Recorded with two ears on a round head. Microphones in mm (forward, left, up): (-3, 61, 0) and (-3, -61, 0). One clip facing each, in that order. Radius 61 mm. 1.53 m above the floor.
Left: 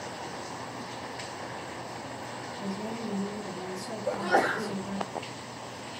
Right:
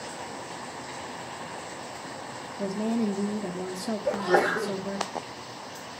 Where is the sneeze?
30° right (ahead or behind), 2.5 m.